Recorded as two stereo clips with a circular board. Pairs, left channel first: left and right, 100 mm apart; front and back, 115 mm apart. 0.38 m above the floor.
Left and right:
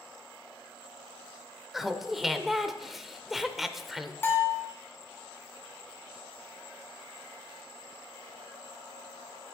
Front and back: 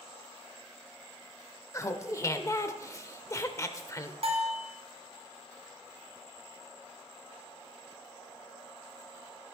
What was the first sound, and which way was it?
Laughter, 5° right.